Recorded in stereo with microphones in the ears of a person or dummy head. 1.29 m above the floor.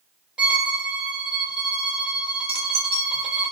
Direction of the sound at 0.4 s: Centre (ahead or behind).